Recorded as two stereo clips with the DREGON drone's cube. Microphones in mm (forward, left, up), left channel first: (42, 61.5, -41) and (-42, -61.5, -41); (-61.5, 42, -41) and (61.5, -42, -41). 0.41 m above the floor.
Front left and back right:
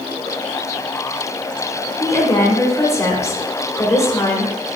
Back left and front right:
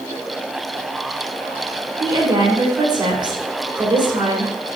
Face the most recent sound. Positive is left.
turn(degrees=0)